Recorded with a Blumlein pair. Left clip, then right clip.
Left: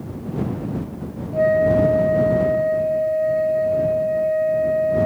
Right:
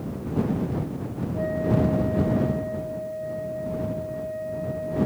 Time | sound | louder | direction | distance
1.3 | a flute | left 10 dB | 30° left | ?